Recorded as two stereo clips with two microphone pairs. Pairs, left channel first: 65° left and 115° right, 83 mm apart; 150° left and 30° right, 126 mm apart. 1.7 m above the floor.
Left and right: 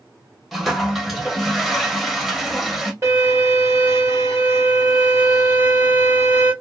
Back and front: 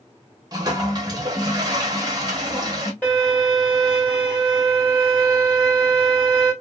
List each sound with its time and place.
0.5 s a toilet flushing: 25° right, 0.8 m
3.0 s a violin: 140° right, 1.9 m